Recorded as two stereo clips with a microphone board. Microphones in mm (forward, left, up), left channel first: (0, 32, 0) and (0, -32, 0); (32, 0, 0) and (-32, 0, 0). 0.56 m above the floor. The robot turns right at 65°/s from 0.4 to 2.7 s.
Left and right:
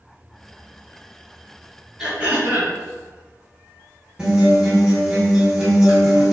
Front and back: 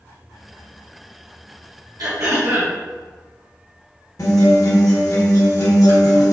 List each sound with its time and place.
2.0 s throat clearing: 175° right, 2.0 m; by 2.8 s 130° right, 2.0 m
4.2 s a guitar: 15° right, 1.9 m